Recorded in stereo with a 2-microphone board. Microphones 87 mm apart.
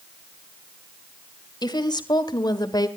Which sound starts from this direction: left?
A woman speaking, at 1.6 s.